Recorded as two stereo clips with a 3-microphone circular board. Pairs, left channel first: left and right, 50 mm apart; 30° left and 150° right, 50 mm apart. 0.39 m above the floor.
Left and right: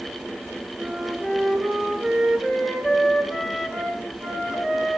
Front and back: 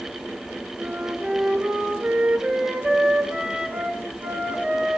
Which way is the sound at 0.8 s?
160° right.